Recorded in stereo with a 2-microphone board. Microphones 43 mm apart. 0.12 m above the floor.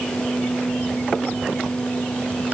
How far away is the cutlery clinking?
No cutlery clinking in this recording.